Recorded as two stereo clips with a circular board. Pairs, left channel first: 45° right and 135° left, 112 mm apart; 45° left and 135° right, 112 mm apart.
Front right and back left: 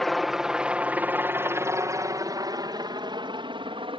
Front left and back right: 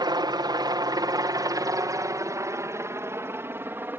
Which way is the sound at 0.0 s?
135° right.